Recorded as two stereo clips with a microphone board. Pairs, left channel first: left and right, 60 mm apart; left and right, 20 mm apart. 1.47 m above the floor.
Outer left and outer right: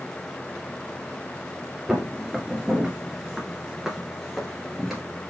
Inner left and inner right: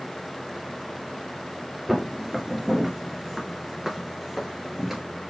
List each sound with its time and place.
1.9 s footsteps: 5° right (ahead or behind), 1.6 m